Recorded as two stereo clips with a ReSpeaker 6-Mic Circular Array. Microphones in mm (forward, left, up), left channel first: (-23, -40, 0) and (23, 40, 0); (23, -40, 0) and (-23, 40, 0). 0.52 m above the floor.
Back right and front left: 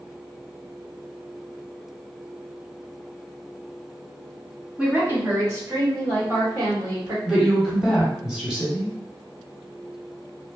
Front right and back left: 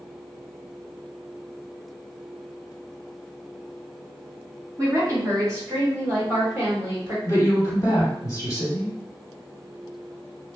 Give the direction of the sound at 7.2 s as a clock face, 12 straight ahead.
1 o'clock.